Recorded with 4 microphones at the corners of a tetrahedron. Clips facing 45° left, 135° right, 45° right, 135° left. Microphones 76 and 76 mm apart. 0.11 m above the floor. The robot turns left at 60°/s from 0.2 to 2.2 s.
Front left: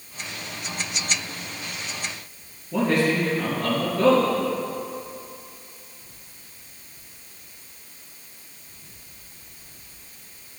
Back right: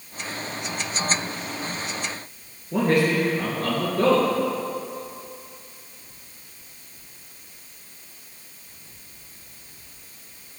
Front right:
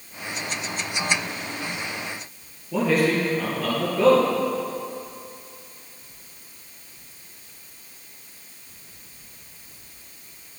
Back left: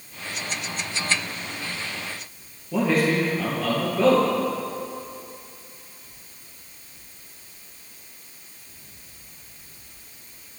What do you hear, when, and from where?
2.7 s a man speaking: 140° right, 2.5 m